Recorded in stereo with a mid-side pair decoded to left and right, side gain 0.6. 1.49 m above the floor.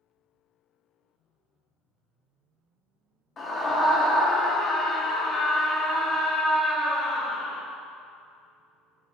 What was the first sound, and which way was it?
A scream, 35° left.